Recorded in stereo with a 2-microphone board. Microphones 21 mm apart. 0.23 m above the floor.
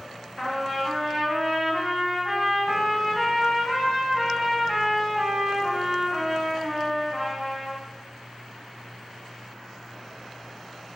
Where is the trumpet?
15° left (ahead or behind), 1.6 m.